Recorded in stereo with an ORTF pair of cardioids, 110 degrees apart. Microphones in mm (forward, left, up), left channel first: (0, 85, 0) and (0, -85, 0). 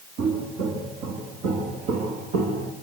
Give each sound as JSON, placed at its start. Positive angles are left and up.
{"t": 0.2, "sound": "footsteps", "azimuth_deg": -60, "distance_m": 6.5}